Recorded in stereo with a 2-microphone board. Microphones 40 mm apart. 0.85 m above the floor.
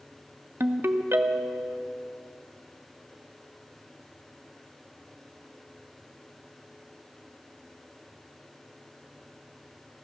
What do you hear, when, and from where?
0.6 s a ringtone: 80° right, 0.6 m